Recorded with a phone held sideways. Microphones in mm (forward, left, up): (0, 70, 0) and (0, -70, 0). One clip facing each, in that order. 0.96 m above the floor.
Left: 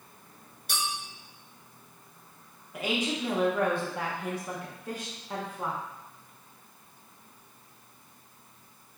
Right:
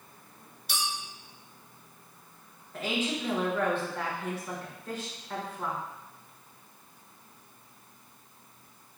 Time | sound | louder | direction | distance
0.7 | a clink | left 1 dB | 50° left (ahead or behind) | 0.8 m
2.7 | a woman speaking | left 1 dB | 15° left (ahead or behind) | 0.6 m